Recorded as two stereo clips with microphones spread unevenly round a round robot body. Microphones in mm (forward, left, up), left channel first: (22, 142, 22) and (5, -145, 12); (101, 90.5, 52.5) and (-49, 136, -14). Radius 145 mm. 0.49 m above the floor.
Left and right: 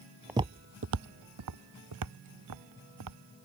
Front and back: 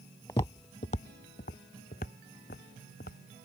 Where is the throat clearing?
I don't hear throat clearing.